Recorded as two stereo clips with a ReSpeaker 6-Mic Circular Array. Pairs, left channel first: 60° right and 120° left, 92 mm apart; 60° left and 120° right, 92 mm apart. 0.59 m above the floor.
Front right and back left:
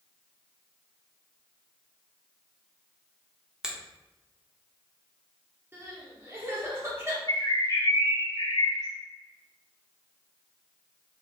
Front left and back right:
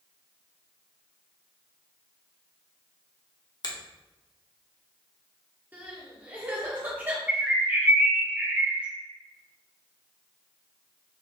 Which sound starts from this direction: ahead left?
A finger snap, at 3.6 s.